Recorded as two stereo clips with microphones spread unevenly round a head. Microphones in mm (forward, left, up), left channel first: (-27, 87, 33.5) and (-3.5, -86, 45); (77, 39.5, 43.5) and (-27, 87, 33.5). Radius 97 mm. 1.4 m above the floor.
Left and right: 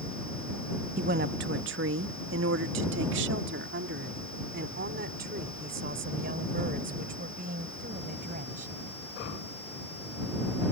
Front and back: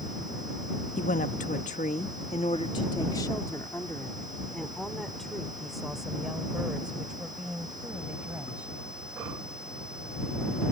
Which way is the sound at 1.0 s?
40° right.